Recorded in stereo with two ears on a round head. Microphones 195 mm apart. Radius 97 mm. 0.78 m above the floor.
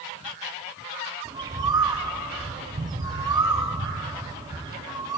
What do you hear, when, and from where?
1.2 s a bird: 20° right (ahead or behind), 0.7 m